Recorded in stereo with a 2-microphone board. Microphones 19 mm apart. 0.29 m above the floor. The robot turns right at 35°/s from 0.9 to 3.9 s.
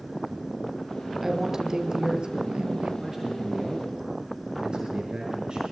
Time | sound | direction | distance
1.2 | a woman speaking | 165° right | 6 m
3.0 | a man speaking | 165° right | 5 m